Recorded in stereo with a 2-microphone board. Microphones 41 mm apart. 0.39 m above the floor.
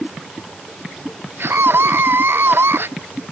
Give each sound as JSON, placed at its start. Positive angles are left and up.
{"t": 1.4, "sound": "a scream", "side_deg": -65}